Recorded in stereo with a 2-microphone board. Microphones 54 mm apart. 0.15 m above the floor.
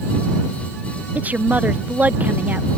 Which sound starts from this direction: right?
A woman speaking, at 1.1 s.